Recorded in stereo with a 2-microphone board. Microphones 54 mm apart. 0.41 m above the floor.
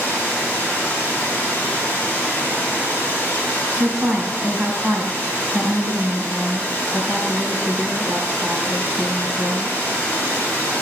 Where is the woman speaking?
15° right (ahead or behind), 3 m.